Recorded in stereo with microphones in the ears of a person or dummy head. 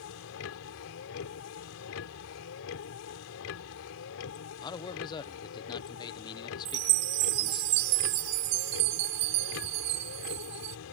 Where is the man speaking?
25° left (ahead or behind).